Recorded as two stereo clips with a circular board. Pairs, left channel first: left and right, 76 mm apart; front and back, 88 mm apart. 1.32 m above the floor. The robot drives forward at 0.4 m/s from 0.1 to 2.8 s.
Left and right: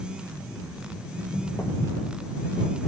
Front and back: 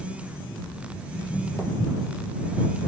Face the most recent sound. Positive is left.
turn(degrees=85)